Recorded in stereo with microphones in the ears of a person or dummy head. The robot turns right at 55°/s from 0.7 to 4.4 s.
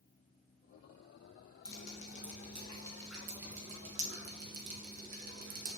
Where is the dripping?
60° left (ahead or behind), 2 m; by 5.8 s 55° right (ahead or behind), 2 m.